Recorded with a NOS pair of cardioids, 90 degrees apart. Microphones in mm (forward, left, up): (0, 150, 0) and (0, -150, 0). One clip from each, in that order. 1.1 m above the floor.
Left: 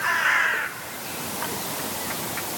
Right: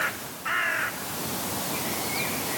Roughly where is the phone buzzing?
I don't hear a phone buzzing.